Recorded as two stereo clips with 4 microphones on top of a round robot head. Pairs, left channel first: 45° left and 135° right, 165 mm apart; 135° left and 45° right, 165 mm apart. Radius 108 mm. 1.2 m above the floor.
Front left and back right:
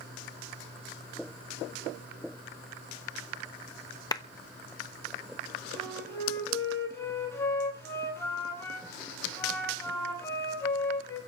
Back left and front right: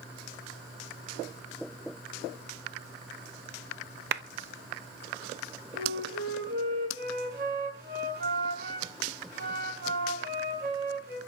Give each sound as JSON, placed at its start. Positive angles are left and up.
{"t": 4.1, "sound": "a clap", "azimuth_deg": -20, "distance_m": 0.8}
{"t": 5.7, "sound": "a flute", "azimuth_deg": -30, "distance_m": 8.5}